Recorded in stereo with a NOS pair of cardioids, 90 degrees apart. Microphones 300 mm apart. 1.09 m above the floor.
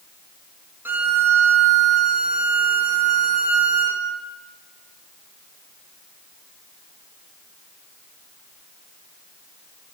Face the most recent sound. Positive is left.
turn(degrees=-5)